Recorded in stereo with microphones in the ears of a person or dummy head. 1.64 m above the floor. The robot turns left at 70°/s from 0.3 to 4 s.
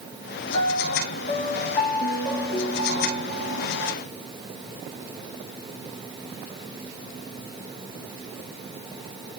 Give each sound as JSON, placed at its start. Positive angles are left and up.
{"t": 0.5, "sound": "a piano", "azimuth_deg": 145, "distance_m": 3.0}